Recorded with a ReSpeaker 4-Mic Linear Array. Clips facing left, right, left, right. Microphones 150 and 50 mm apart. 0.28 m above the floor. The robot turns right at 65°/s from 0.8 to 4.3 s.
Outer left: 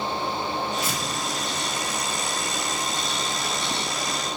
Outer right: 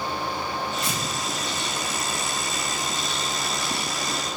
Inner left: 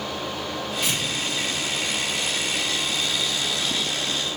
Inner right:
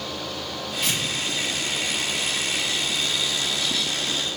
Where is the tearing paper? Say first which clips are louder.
Even, inner right 1 dB; 10° left (ahead or behind), 1.1 m; by 1.0 s centre (ahead or behind), 1.1 m.